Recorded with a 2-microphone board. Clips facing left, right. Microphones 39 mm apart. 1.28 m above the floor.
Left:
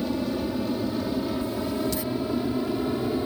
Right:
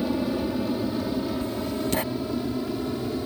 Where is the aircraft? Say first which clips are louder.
Right 1 dB; 10° right (ahead or behind); by 3.3 s 15° left (ahead or behind).